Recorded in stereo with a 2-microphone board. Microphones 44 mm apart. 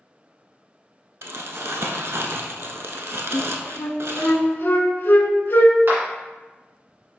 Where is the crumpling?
75° right (ahead or behind), 0.6 m.